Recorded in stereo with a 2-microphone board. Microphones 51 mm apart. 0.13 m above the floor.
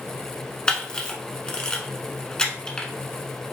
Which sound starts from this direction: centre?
A camera shutter, at 0.7 s.